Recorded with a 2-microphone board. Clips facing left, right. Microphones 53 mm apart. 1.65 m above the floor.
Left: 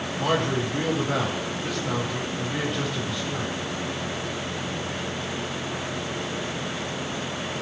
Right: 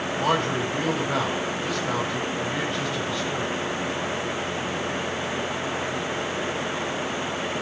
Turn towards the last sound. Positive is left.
turn(degrees=5)  # may be behind; listen again after turning